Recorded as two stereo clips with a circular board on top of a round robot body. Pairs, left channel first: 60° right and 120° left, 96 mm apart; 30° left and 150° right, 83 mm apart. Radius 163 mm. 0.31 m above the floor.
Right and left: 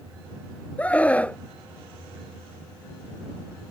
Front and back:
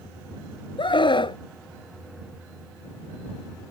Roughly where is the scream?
Ahead.